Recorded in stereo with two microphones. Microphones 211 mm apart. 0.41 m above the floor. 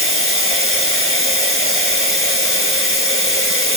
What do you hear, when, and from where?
0.0 s running water: 75° left (ahead or behind), 1.2 m